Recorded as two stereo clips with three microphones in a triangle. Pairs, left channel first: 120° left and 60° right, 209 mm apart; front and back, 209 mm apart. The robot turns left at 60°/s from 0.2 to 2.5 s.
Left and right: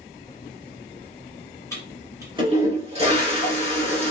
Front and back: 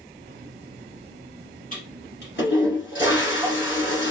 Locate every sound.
1.7 s a toilet flushing: 45° left, 1.7 m; by 4.1 s 5° right, 1.7 m